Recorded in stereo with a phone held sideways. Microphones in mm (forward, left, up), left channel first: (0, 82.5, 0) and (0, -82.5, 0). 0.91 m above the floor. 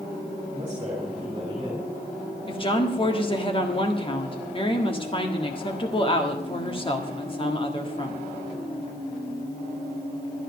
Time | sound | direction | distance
0.5 | a man speaking | 30° right (ahead or behind) | 2.5 m
2.5 | a woman speaking | 30° left (ahead or behind) | 1.6 m